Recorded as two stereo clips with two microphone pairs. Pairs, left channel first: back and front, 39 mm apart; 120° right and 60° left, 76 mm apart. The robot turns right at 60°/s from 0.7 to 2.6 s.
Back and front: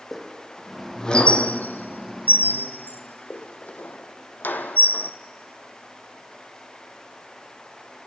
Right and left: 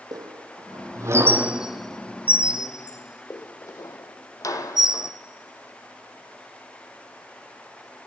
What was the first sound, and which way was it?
A squeak, 90° left.